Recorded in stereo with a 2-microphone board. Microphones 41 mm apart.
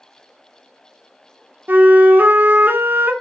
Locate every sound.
1.7 s a flute: 45° right (ahead or behind), 0.7 m